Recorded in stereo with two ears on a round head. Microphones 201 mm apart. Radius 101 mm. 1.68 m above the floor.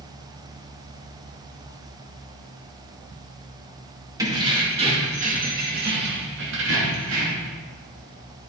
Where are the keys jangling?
15° right (ahead or behind), 2 m; by 7.5 s 75° right (ahead or behind), 2.5 m.